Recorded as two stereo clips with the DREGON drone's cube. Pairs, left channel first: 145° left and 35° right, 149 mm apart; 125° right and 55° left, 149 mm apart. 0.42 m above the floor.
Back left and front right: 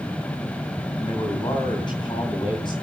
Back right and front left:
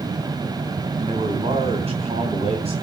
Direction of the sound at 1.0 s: 95° left.